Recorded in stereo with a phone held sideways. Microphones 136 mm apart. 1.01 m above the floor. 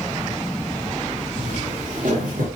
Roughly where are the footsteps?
Right.